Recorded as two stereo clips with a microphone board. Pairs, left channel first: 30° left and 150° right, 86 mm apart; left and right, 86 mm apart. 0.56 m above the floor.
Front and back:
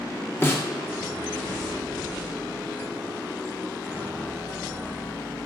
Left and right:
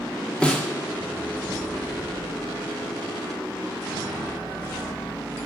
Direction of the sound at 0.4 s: 25° left.